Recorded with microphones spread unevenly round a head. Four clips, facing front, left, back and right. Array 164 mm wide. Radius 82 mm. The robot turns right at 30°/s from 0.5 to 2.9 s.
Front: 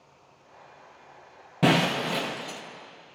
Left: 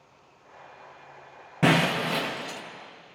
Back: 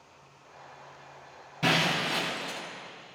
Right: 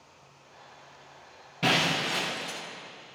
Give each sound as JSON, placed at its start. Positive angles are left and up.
{"t": 1.6, "sound": "breaking glass", "azimuth_deg": 40, "distance_m": 1.0}